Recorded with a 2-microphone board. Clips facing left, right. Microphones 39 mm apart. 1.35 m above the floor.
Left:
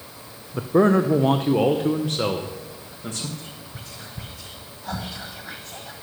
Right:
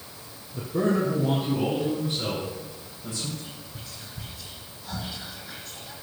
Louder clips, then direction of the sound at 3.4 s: Left 2 dB; 55° left (ahead or behind).